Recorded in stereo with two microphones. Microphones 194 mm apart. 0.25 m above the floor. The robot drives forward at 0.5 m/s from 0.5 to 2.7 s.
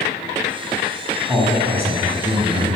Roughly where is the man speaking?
Centre.